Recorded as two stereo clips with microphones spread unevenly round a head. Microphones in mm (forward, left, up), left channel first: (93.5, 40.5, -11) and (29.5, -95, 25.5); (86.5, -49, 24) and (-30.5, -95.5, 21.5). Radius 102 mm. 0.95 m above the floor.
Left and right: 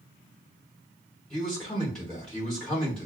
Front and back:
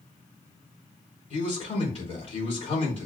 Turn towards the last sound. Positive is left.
turn(degrees=-20)